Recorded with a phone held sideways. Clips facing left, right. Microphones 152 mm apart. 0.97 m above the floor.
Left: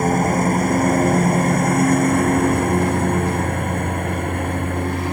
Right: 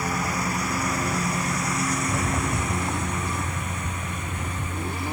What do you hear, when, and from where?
0.0 s a lawn mower: 50° left (ahead or behind); by 5.1 s 55° left (ahead or behind)
2.0 s a rattle: 20° right (ahead or behind)